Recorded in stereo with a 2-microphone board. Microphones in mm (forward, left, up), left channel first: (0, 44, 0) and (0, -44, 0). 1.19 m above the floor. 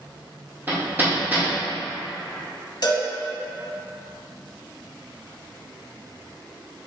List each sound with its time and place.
0.7 s hammering: 20° right (ahead or behind), 1.9 m
2.8 s a cowbell: 55° left (ahead or behind), 1.6 m